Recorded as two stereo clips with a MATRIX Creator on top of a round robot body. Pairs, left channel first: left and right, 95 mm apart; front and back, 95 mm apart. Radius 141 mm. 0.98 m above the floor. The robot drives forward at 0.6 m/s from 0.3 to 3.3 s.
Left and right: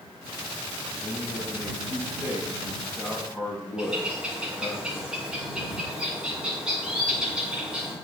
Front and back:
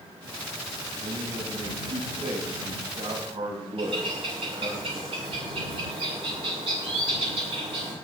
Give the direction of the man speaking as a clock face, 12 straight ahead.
6 o'clock.